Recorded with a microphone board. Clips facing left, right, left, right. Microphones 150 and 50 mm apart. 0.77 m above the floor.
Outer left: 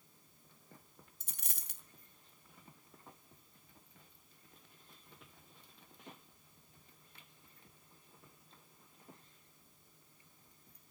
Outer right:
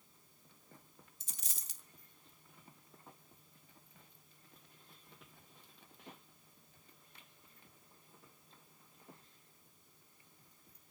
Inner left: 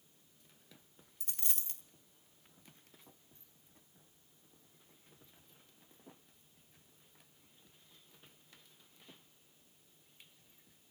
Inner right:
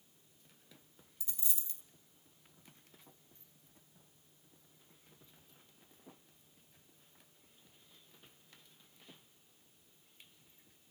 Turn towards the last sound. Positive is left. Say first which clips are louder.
# outer left 4 dB, inner left 3 dB
turn(degrees=60)  # may be behind; listen again after turning